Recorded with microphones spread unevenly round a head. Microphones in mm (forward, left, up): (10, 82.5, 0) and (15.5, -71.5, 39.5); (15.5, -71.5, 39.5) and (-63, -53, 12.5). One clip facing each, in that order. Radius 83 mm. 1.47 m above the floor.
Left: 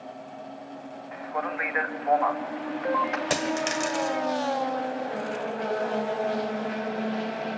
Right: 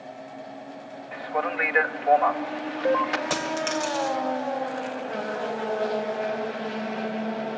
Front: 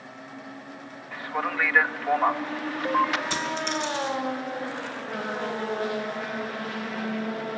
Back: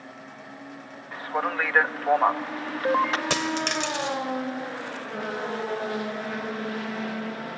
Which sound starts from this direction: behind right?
A man speaking, at 1.1 s.